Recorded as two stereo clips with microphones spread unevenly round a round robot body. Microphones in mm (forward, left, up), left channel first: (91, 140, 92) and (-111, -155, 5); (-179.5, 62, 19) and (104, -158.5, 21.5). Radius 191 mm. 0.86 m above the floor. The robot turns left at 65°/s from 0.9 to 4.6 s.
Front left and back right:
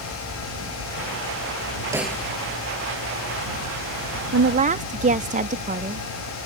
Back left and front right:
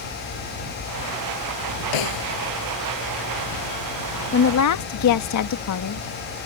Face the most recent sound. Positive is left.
turn(degrees=175)